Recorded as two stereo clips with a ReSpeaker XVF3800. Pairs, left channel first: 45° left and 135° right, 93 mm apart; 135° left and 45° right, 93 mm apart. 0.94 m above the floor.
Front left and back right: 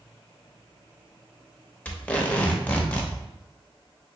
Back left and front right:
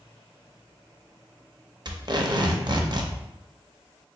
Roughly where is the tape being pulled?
Ahead right.